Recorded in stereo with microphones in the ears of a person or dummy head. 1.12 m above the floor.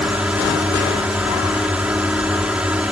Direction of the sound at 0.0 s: 5° right (ahead or behind).